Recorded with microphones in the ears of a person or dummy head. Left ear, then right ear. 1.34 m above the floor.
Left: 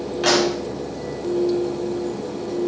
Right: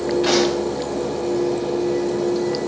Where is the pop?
45° left (ahead or behind), 4 m.